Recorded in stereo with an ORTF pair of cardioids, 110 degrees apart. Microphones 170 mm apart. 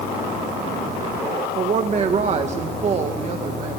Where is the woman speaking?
40° right, 1.9 m.